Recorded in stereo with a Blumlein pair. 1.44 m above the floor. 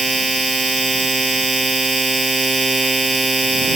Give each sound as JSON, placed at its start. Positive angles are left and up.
{"t": 0.0, "sound": "a machine running", "azimuth_deg": -10}